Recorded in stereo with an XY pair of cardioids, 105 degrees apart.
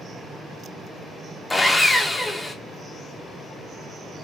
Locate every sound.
1.5 s sawing: 15° left, 0.7 m